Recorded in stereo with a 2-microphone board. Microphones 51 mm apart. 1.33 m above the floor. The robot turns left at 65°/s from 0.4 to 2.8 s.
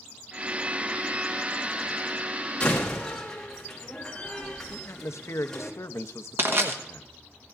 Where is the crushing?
50° right (ahead or behind), 1.3 m.